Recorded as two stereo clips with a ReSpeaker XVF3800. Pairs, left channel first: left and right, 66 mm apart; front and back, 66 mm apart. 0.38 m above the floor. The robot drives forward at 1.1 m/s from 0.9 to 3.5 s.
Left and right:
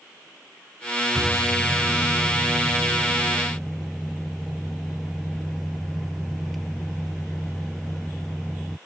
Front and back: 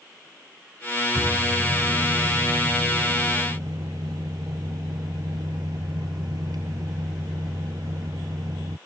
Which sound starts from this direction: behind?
A microwave, at 1.1 s.